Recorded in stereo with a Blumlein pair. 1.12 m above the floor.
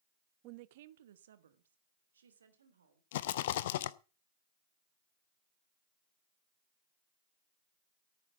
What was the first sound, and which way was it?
A woman speaking, 35° right.